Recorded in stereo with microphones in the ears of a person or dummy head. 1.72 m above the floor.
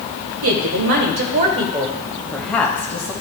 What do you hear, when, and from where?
0.4 s a woman speaking: 75° right (ahead or behind), 1.4 m; by 3.1 s 15° left (ahead or behind), 1.7 m